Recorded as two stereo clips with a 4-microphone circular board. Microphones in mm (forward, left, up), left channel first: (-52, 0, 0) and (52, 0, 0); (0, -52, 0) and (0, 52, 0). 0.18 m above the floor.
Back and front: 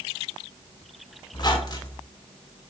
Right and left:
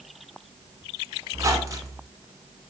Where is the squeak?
140° left, 0.7 m.